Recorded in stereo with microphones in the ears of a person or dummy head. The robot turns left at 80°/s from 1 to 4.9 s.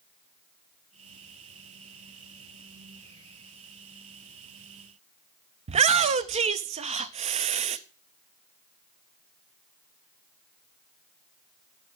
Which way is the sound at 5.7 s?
35° right (ahead or behind).